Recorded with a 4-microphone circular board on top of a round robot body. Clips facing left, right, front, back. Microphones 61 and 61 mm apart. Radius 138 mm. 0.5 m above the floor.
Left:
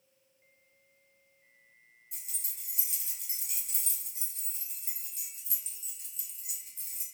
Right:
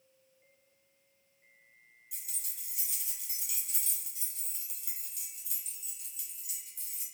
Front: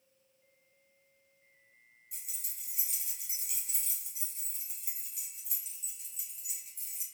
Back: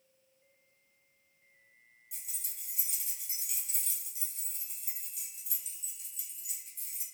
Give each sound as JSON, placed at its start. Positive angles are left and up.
{"t": 2.1, "sound": "keys jangling", "azimuth_deg": 45, "distance_m": 1.6}